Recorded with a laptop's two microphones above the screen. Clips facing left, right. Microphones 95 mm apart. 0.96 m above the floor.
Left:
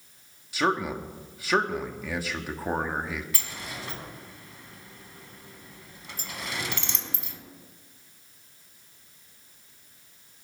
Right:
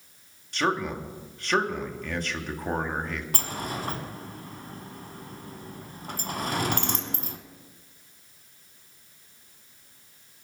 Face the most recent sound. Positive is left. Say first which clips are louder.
# right 7 dB
turn(degrees=-45)  # may be behind; listen again after turning